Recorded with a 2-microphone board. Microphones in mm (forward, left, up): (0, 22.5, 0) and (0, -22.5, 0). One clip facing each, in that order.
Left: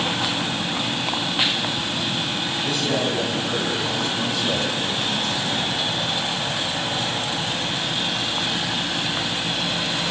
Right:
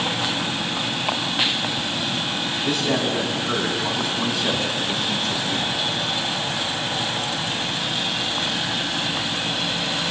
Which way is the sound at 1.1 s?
10° right (ahead or behind).